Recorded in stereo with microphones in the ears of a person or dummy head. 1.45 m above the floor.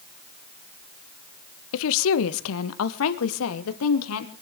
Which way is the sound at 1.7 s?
75° left (ahead or behind).